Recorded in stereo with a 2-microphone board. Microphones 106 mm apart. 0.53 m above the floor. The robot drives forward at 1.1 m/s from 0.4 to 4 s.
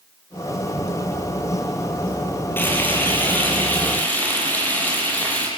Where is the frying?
20° left (ahead or behind), 8 m; by 5.5 s 15° left (ahead or behind), 9.5 m.